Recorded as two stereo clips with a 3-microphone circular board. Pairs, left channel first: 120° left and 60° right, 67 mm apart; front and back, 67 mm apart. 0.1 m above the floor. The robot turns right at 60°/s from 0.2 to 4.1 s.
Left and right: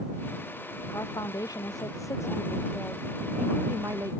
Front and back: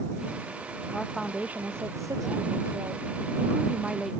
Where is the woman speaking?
80° left; by 4.2 s 90° right.